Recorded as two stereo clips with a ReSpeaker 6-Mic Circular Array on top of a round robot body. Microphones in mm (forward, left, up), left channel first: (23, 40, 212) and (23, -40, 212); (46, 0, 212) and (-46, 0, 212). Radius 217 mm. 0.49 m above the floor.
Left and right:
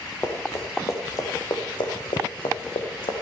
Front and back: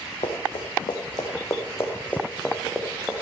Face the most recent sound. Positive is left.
turn(degrees=100)